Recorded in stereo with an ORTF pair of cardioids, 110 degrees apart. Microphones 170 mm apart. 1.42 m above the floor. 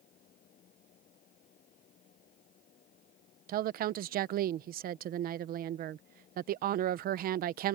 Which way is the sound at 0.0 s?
55° left.